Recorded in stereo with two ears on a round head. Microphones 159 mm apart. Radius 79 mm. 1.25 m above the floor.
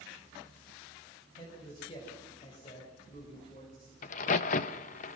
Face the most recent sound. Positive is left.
turn(degrees=45)  # may be behind; listen again after turning